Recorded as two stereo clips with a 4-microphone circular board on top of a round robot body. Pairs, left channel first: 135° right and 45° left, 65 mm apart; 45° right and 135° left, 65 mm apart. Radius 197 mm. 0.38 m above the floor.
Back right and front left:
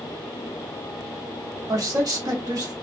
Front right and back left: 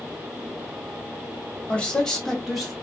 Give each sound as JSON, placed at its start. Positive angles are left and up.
{"t": 1.7, "sound": "a man speaking", "azimuth_deg": 20, "distance_m": 1.2}